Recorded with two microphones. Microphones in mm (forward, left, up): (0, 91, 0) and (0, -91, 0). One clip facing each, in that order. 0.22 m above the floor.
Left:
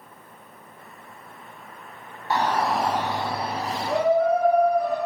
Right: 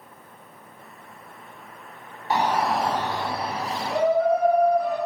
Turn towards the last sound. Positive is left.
turn(degrees=65)  # may be behind; listen again after turning